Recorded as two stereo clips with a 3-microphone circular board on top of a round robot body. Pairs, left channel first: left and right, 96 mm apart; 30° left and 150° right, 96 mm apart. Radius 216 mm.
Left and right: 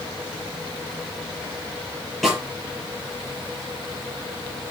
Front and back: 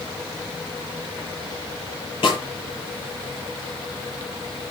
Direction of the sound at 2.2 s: Straight ahead.